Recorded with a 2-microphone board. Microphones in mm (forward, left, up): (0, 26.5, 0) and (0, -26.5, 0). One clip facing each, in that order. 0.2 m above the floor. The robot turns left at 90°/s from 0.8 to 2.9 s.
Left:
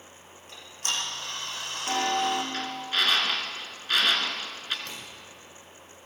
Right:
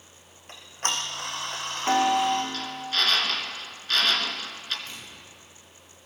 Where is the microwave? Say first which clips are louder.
Left 1 dB; 80° left, 6.5 m.